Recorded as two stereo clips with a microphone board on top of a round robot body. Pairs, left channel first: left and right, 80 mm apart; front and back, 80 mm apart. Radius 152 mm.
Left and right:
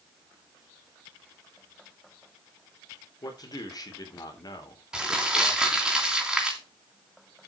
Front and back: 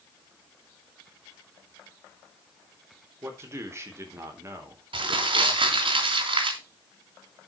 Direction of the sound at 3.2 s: 125° left.